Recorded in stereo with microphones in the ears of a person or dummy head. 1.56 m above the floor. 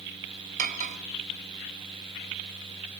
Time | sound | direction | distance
0.6 | cutlery clinking | 40° right (ahead or behind) | 1.9 m